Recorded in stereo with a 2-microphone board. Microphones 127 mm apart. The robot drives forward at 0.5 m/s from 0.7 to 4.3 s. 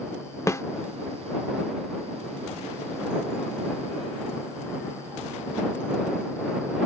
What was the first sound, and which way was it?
A snare drum, 25° left (ahead or behind).